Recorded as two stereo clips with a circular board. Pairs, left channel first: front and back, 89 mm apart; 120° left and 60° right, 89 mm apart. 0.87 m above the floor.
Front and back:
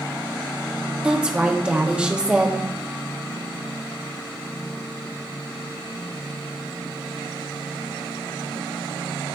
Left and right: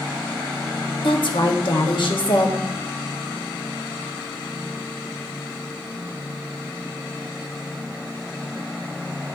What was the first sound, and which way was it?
A woman speaking, 100° left.